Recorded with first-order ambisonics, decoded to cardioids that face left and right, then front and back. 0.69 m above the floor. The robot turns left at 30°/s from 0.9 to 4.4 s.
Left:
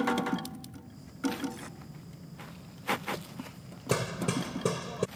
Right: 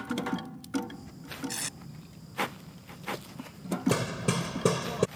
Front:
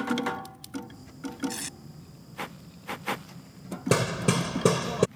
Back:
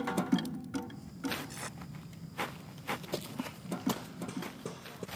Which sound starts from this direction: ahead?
Hammering, at 3.9 s.